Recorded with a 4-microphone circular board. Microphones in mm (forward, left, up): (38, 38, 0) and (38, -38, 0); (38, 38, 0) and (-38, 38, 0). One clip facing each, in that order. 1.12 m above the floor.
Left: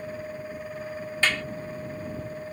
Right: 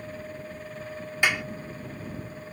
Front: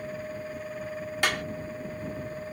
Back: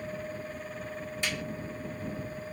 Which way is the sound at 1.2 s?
15° right.